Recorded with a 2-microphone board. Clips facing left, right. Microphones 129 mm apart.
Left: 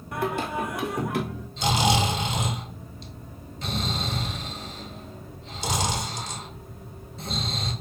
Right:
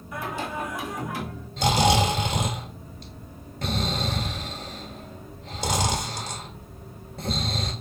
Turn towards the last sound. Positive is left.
turn(degrees=-60)  # may be behind; listen again after turning